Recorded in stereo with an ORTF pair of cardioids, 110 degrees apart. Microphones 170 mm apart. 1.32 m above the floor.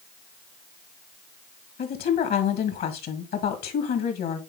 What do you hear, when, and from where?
1.8 s a woman speaking: 65° left, 2 m